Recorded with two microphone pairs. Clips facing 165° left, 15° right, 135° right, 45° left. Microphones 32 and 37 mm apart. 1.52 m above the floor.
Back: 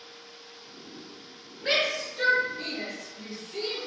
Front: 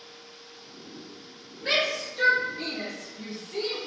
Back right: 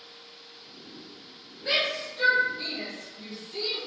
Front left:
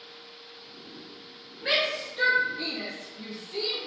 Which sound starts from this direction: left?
A shout, at 1.6 s.